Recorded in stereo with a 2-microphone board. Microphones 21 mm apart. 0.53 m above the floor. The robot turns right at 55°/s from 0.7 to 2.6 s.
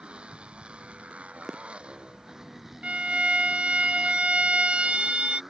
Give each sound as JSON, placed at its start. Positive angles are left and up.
{"t": 0.0, "sound": "a motorcycle", "azimuth_deg": -120}
{"t": 2.8, "sound": "a violin", "side_deg": -65}